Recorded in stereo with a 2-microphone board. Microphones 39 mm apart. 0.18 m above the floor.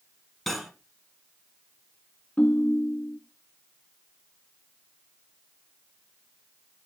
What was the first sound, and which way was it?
Cutlery clinking, centre (ahead or behind).